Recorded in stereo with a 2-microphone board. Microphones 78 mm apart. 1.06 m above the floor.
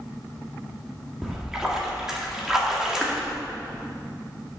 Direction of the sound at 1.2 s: 5° right (ahead or behind).